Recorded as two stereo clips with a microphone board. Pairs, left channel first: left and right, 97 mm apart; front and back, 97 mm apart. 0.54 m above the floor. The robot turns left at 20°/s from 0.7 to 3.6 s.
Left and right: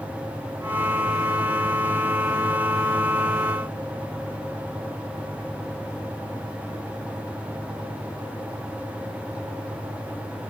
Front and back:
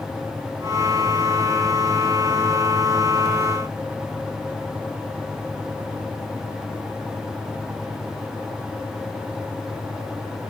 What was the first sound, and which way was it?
Only background noise.